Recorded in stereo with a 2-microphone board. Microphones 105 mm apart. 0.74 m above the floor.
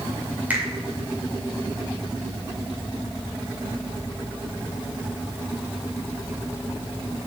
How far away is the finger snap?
About 1.9 m.